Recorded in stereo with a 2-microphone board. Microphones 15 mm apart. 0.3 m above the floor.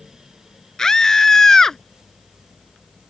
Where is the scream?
40° left (ahead or behind); by 1.8 s 30° left (ahead or behind).